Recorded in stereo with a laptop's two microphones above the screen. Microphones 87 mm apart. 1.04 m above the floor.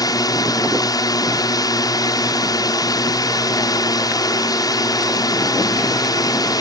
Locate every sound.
0.0 s a drone: 45° left (ahead or behind)